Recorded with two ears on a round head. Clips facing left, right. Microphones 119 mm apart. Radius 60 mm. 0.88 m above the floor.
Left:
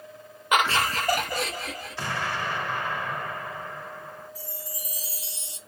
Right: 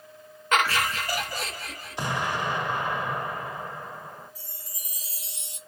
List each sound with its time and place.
0.5 s laughter: 10° left (ahead or behind), 0.5 m; by 2.0 s 60° left (ahead or behind), 1.0 m
2.0 s an explosion: 15° right (ahead or behind), 0.6 m
4.3 s a chime: 60° left (ahead or behind), 1.3 m